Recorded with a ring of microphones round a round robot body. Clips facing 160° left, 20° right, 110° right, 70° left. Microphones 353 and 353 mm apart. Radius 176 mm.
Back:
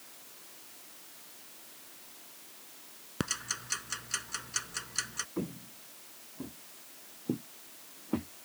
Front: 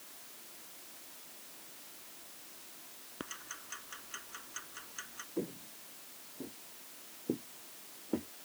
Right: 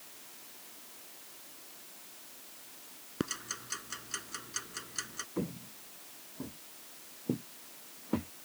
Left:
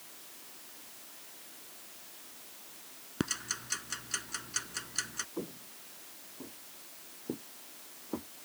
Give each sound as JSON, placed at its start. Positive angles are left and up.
{"t": 3.2, "sound": "ticking", "azimuth_deg": 145}
{"t": 5.4, "sound": "footsteps", "azimuth_deg": -150}